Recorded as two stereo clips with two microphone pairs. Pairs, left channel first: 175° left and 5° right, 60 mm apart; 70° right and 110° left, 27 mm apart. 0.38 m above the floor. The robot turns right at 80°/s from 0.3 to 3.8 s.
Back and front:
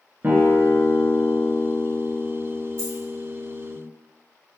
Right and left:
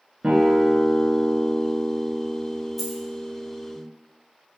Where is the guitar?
50° left, 0.7 m; by 3.8 s 30° right, 0.7 m.